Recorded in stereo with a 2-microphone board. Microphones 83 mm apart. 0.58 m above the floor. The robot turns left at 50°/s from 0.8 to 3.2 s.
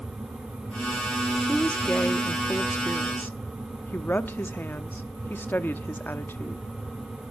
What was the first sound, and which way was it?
A woman speaking, 10° left (ahead or behind).